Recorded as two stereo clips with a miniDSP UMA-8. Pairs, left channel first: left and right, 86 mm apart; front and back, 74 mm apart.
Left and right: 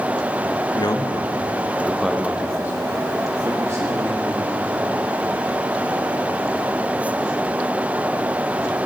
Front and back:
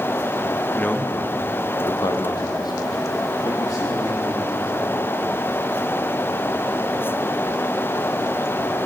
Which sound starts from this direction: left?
A man speaking, at 0.8 s.